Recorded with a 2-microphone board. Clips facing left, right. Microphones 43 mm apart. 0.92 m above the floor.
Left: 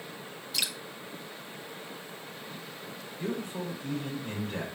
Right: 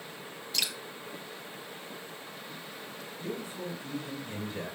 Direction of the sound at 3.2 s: 55° left (ahead or behind).